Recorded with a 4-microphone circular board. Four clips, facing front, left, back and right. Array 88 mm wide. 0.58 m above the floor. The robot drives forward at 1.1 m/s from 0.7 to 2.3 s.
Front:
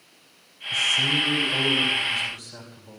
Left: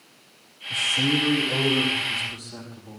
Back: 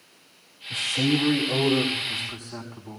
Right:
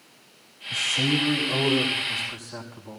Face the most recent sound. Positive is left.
turn(degrees=180)